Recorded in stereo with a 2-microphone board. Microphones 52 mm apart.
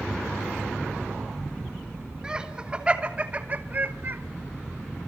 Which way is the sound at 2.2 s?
15° right (ahead or behind).